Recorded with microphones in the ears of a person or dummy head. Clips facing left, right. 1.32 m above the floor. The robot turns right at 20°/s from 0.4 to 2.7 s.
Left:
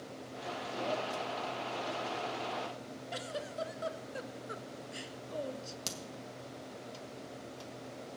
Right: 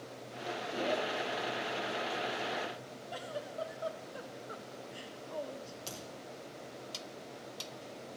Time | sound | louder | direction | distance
3.1 | a giggle | even | 25° left (ahead or behind) | 0.5 m
5.9 | a crack | left 1 dB | 70° left (ahead or behind) | 1.8 m